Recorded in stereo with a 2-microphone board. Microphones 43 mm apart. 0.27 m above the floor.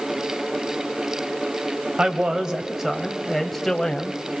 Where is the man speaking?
25° right (ahead or behind), 1.7 m; by 4.2 s 15° left (ahead or behind), 1.9 m.